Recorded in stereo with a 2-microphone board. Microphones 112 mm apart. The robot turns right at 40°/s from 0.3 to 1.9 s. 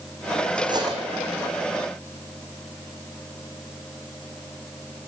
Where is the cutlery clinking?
45° right (ahead or behind), 6 m; by 1.0 s 30° right (ahead or behind), 6 m.